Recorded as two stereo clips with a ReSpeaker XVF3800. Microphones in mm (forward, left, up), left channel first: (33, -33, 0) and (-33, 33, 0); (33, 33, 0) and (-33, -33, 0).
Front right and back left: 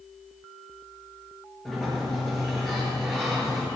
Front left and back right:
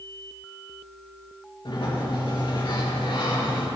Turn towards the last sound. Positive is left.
turn(degrees=50)